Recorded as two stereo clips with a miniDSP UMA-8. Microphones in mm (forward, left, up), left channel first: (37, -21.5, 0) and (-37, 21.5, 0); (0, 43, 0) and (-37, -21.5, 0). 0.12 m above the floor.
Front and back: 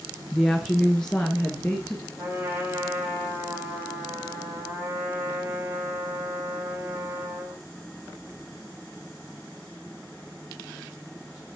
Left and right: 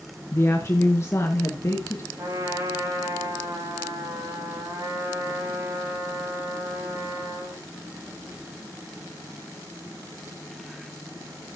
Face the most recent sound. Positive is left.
turn(degrees=-150)